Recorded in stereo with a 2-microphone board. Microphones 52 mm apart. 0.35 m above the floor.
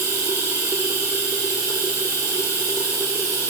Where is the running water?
85° right, 2.0 m.